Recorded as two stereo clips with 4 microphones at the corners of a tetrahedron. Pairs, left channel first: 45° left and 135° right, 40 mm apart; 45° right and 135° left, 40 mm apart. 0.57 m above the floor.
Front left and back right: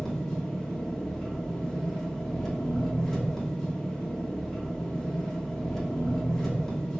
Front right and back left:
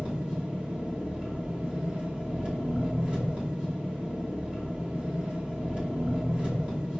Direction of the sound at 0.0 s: 120° left.